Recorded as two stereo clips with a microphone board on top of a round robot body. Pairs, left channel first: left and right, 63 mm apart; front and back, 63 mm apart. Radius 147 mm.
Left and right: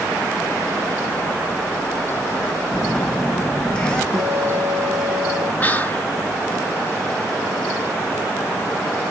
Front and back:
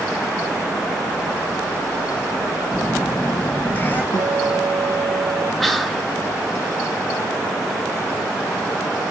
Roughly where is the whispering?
Left.